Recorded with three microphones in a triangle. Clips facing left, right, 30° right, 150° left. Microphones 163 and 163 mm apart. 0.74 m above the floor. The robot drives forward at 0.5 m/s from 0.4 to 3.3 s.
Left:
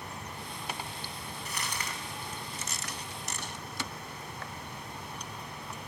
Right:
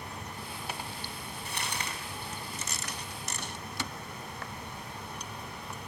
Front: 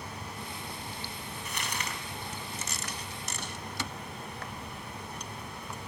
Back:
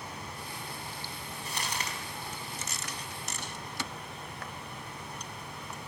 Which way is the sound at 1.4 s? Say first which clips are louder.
Right 1 dB, back 1 dB; 150° right.